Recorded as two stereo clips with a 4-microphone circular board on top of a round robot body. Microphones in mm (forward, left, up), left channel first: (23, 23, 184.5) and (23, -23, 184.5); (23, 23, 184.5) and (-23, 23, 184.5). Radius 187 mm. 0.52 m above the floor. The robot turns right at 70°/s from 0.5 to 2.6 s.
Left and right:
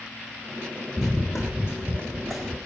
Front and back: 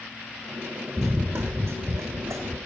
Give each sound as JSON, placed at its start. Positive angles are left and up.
{"t": 1.0, "sound": "running footsteps", "azimuth_deg": 130, "distance_m": 0.5}